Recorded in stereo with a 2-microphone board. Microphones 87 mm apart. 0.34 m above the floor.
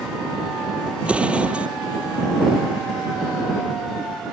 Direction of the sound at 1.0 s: 15° right (ahead or behind).